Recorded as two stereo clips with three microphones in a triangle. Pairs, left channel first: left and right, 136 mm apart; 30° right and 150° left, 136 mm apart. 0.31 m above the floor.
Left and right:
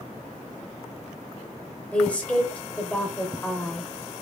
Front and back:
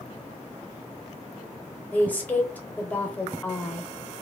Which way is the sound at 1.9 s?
25° left.